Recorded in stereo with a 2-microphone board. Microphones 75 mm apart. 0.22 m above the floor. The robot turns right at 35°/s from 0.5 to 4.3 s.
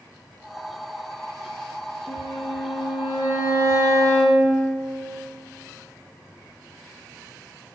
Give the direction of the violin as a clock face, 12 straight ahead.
10 o'clock.